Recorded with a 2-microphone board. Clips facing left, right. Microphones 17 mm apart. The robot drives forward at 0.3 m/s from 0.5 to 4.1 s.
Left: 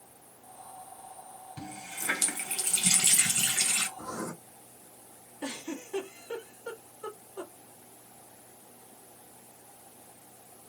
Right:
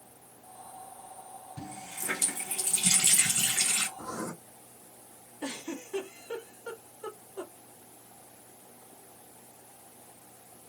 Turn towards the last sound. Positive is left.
turn(degrees=55)  # may be behind; listen again after turning